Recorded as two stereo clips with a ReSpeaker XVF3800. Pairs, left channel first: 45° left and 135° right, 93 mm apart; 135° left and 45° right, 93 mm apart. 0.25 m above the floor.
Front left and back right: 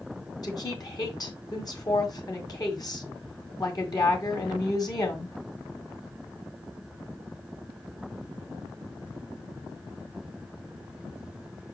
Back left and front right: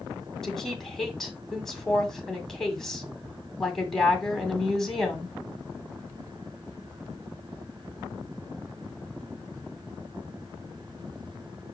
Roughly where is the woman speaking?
Ahead left.